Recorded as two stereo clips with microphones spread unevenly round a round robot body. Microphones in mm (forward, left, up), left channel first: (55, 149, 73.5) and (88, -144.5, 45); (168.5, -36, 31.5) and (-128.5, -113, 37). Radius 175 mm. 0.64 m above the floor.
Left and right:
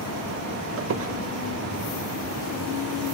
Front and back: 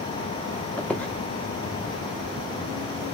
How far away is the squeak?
About 0.7 m.